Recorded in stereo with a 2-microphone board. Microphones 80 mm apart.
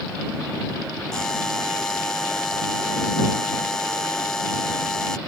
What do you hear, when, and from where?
1.1 s a buzzer: 5° left (ahead or behind)